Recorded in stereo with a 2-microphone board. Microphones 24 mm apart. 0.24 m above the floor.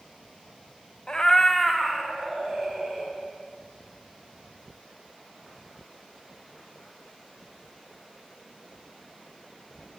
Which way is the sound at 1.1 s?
35° left (ahead or behind).